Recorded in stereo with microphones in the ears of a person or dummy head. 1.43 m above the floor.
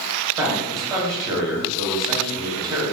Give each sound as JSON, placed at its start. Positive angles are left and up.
{"t": 0.4, "sound": "a man speaking", "side_deg": -20, "distance_m": 1.6}